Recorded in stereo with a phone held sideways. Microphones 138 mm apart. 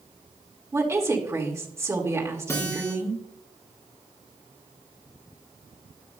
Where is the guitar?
20° left (ahead or behind), 4.5 m.